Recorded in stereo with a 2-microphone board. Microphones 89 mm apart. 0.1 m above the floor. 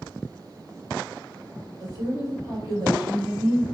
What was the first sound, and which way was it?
A woman speaking, 40° right (ahead or behind).